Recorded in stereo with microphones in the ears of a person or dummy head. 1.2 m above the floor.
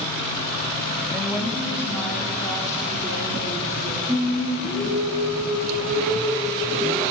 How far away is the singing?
About 3.5 m.